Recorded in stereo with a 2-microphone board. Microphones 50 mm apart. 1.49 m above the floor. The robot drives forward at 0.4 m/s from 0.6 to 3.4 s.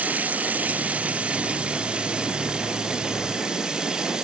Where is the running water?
30° right (ahead or behind), 1.0 m; by 4.2 s 15° right (ahead or behind), 2 m.